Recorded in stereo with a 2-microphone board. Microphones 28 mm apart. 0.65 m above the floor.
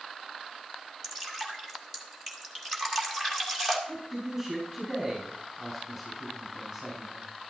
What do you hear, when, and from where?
1.0 s dripping: centre (ahead or behind), 1.8 m
3.9 s a man speaking: 10° right (ahead or behind), 6.5 m